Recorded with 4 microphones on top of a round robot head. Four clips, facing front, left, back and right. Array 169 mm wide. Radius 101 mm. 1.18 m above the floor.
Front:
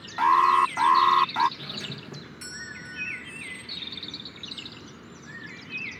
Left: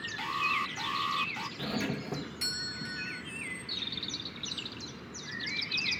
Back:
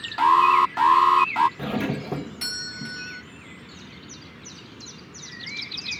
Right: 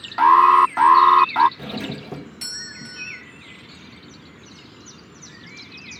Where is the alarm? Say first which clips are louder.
Right 22 dB, back 3 dB; 100° right.